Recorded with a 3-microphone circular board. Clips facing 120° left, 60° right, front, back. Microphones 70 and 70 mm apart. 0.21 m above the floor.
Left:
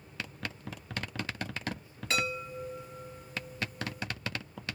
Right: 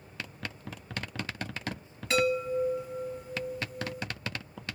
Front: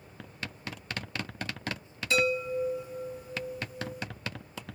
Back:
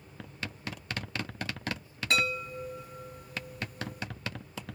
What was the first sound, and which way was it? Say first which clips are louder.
A chime: right 7 dB, front 4 dB; 150° right.